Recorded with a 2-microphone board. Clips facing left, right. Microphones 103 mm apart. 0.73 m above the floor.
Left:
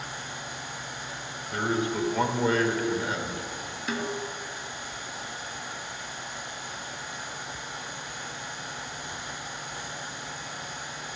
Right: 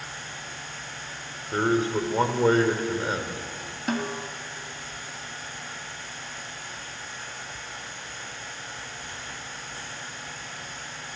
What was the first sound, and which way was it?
A man speaking, 35° right (ahead or behind).